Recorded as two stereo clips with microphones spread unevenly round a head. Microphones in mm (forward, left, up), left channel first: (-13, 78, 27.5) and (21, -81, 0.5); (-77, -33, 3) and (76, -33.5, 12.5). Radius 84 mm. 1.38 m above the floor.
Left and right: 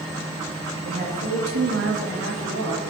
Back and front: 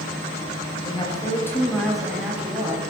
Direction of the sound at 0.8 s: 120° right.